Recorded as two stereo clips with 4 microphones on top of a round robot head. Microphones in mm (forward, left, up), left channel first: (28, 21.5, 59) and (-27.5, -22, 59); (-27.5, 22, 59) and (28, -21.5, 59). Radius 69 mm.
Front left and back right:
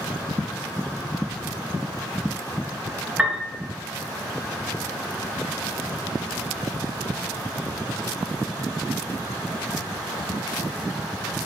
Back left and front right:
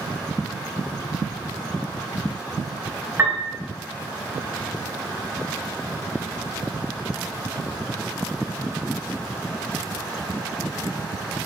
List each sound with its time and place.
3.2 s a piano: 70° right, 1.3 m